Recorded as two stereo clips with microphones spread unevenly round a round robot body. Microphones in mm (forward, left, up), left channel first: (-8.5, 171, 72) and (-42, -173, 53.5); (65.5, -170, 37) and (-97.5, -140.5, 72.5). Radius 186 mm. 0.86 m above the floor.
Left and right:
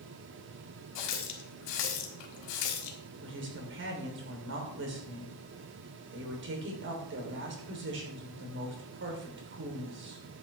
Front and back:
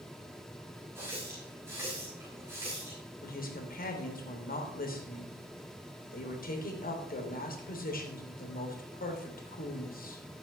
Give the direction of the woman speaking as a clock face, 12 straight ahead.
1 o'clock.